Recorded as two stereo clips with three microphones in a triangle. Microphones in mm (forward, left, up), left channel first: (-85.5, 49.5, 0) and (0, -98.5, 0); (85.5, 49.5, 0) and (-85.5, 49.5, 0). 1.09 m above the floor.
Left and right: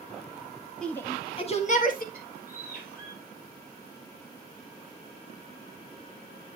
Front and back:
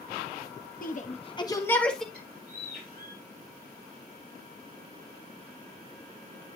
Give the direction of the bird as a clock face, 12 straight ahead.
7 o'clock.